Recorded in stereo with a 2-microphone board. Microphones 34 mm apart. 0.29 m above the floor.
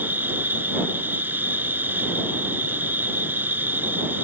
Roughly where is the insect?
Right.